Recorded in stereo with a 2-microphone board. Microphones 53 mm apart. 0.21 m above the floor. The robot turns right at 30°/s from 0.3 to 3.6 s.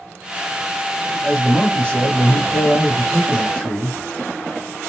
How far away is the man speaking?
About 1.0 m.